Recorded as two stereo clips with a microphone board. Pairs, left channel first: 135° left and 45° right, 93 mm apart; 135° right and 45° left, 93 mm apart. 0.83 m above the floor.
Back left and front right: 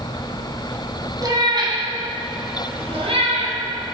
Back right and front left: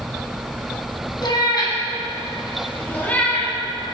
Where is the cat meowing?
95° right, 2 m; by 3.5 s 55° right, 2.5 m.